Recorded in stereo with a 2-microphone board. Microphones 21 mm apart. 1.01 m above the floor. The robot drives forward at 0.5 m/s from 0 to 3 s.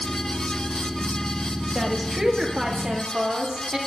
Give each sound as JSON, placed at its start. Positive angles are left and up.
{"t": 1.8, "sound": "a woman speaking", "side_deg": -10, "distance_m": 1.4}